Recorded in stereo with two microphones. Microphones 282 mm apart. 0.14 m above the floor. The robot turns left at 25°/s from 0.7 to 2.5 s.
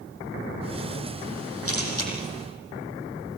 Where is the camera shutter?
50° left (ahead or behind), 6 m; by 2.1 s 65° left (ahead or behind), 6 m.